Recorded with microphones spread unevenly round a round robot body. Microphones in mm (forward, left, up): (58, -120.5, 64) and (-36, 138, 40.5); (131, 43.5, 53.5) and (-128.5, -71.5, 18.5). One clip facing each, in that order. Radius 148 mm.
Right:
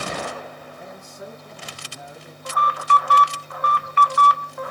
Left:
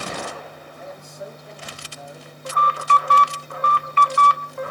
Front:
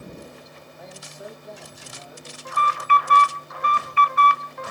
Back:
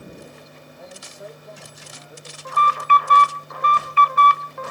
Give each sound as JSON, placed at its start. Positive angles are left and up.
{"t": 0.8, "sound": "a man speaking", "azimuth_deg": -55, "distance_m": 3.0}
{"t": 2.5, "sound": "an alarm", "azimuth_deg": 165, "distance_m": 0.5}